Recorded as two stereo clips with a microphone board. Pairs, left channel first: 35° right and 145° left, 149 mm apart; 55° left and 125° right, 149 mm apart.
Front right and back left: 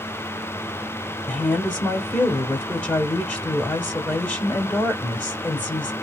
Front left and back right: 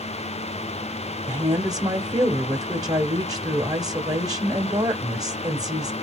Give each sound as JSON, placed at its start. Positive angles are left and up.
{"t": 1.3, "sound": "a woman speaking", "azimuth_deg": -110, "distance_m": 0.9}